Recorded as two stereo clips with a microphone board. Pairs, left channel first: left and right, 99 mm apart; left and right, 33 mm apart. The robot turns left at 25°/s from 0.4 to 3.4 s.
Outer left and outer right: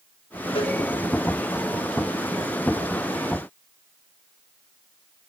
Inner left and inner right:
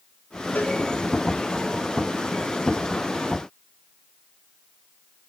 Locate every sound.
0.6 s a cowbell: 85° left, 6 m; by 0.8 s 80° left, 6 m